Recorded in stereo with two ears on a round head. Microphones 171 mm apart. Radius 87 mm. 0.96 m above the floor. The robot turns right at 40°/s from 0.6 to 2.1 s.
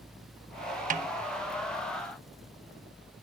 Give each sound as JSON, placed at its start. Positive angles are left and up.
{"t": 0.9, "sound": "a snare drum", "side_deg": -40, "distance_m": 1.0}